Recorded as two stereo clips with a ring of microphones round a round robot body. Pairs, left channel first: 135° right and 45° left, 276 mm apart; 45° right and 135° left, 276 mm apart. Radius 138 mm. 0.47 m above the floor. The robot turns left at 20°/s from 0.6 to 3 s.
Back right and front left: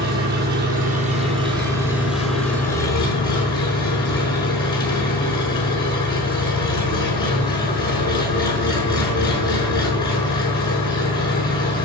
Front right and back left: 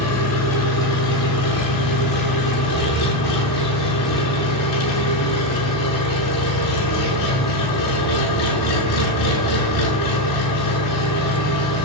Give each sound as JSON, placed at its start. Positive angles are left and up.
{"t": 0.0, "sound": "an engine running", "azimuth_deg": -10, "distance_m": 5.5}